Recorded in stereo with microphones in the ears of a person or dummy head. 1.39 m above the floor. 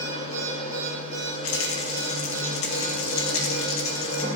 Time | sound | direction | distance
0.0 | a machine running | 35° left (ahead or behind) | 8 m
1.4 | a rattle | 85° left | 1.9 m